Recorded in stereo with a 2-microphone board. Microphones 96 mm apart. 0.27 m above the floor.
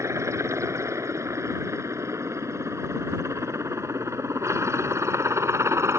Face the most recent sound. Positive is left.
turn(degrees=-30)  # may be behind; listen again after turning